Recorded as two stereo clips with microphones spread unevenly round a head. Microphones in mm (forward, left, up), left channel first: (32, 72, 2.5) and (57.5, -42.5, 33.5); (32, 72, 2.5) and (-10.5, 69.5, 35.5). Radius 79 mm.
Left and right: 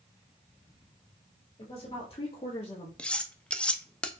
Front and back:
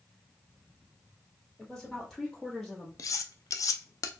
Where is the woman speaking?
65° left, 1.9 m; by 2.9 s 70° left, 1.2 m.